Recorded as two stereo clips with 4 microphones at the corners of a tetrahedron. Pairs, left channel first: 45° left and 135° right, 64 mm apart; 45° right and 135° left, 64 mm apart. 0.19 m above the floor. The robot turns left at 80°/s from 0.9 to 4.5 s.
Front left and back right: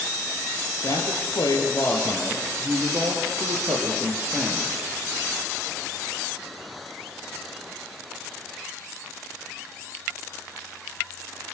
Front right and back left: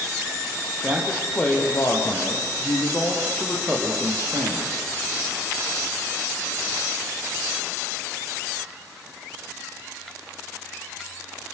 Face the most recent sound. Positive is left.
turn(degrees=140)